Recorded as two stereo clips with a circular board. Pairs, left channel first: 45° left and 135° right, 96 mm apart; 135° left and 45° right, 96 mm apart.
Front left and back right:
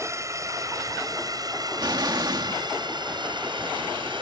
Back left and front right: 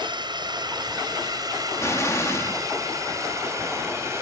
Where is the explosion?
170° right.